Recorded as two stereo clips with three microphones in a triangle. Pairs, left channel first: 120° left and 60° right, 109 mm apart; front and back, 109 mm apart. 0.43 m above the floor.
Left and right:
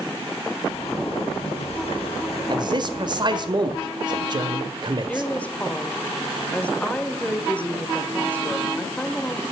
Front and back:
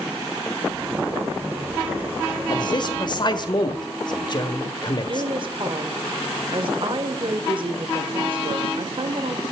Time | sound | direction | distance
0.7 | a zipper | 105° left | 3 m
2.5 | a man speaking | 30° right | 1.6 m
5.1 | a woman speaking | 170° right | 1.3 m